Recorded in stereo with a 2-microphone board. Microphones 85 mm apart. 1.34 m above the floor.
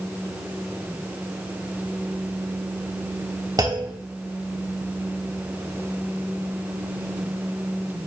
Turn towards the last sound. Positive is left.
turn(degrees=-45)  # may be behind; listen again after turning